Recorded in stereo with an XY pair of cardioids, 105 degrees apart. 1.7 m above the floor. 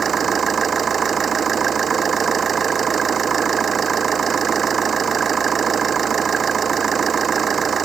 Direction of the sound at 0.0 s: 40° right.